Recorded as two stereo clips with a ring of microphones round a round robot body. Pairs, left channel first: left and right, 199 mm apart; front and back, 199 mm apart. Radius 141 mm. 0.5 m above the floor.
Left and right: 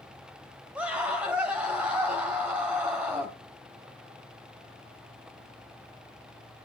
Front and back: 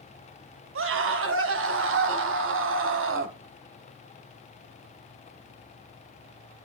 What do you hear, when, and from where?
0.8 s a scream: 175° right, 2 m